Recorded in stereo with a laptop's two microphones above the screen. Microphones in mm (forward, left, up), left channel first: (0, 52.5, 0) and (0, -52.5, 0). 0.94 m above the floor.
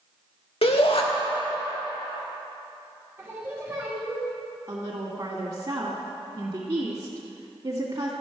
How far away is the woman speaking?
About 1.9 m.